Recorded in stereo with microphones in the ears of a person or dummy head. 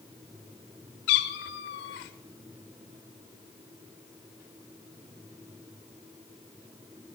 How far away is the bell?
No bell in this recording.